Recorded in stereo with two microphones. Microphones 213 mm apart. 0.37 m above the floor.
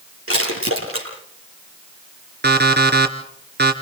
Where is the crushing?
85° right, 9 m.